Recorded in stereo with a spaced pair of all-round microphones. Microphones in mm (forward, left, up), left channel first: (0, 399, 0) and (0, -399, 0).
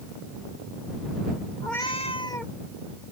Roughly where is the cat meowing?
Left.